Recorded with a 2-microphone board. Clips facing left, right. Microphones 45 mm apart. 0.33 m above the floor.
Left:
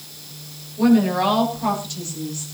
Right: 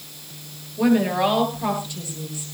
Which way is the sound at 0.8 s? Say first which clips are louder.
Left 2 dB; 15° right (ahead or behind).